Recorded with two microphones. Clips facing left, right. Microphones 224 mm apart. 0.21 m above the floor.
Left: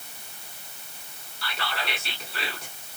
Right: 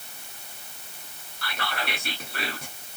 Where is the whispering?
55° right (ahead or behind), 1.7 m.